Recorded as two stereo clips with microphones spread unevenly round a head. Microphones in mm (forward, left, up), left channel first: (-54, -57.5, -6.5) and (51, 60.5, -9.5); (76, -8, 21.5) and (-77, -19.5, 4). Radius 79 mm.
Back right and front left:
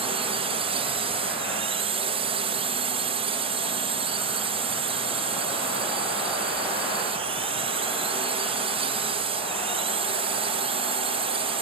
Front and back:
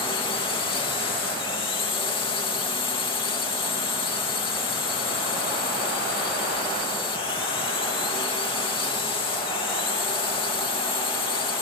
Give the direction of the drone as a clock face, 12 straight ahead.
11 o'clock.